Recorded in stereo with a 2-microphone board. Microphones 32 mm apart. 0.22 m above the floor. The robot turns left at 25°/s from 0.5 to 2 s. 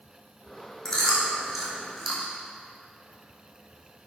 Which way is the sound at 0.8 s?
25° left (ahead or behind).